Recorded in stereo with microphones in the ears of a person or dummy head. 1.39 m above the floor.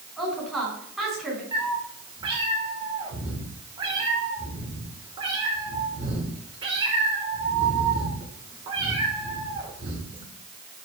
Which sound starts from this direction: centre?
A woman speaking, at 0.2 s.